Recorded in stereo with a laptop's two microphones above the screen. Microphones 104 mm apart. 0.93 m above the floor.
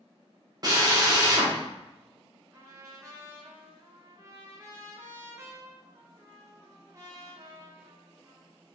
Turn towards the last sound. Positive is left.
turn(degrees=-30)  # may be behind; listen again after turning